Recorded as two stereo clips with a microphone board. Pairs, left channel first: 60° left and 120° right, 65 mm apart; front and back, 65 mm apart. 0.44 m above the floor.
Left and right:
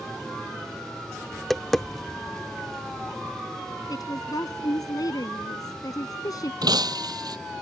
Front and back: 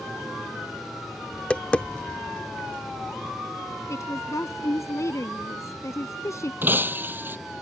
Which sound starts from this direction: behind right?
Breaking glass, at 6.6 s.